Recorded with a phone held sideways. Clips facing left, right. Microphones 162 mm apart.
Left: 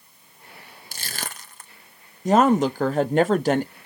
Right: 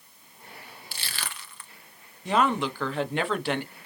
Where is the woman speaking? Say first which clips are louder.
Left 7 dB; 40° left (ahead or behind), 0.7 m.